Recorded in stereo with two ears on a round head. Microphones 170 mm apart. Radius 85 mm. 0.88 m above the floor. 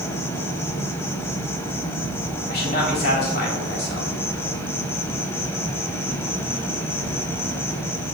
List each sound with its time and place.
0.0 s an insect: 15° left (ahead or behind), 0.8 m
2.5 s a man speaking: 55° left (ahead or behind), 2.5 m